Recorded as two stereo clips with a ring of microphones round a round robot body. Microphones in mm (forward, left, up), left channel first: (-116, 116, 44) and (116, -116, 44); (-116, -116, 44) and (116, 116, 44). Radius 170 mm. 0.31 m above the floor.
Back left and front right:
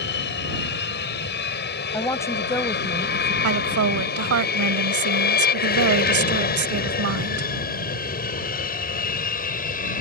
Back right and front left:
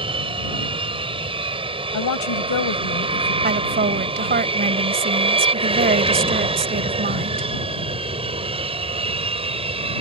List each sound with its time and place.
0.0 s an aircraft: 110° left; by 10.0 s 100° left
1.9 s a woman speaking: 145° right
3.4 s a woman speaking: 15° right